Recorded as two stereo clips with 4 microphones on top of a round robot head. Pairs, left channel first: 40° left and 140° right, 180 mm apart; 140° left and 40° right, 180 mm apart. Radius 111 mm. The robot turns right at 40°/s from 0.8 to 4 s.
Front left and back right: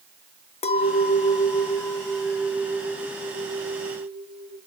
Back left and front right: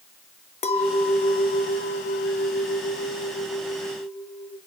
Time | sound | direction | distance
0.6 | a clink | 90° left | 1.0 m